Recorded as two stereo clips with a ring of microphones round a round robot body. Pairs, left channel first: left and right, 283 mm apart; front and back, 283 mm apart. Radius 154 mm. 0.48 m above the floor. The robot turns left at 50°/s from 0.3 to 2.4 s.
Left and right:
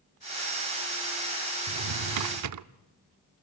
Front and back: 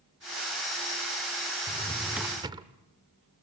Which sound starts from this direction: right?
A drawer, at 1.7 s.